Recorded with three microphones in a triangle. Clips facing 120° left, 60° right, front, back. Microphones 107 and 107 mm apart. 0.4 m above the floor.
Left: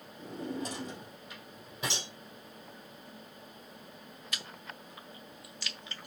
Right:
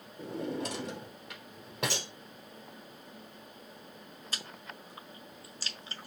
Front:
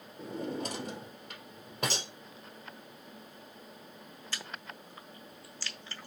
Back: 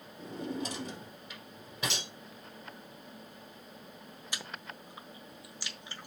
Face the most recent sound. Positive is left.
turn(degrees=-110)